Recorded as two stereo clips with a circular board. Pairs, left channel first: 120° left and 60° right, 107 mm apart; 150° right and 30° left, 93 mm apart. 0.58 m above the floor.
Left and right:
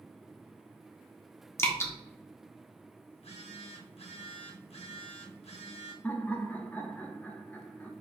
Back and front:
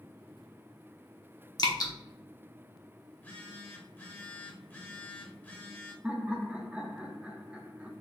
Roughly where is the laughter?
Left.